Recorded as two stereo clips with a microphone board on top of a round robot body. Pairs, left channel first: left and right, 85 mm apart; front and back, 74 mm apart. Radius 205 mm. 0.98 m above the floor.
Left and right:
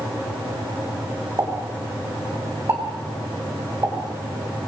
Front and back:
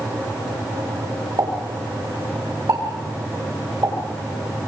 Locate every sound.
1.4 s a pop: 145° right, 5.5 m